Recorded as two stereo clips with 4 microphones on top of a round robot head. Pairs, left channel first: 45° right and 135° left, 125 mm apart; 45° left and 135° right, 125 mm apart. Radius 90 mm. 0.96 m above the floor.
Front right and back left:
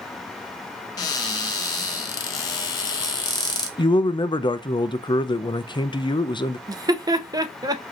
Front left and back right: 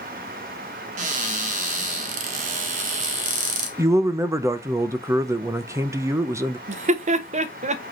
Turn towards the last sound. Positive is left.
turn(degrees=-165)